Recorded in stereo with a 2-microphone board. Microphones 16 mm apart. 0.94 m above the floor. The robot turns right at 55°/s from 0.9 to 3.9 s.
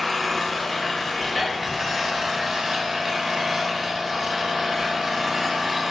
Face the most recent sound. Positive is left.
turn(degrees=-35)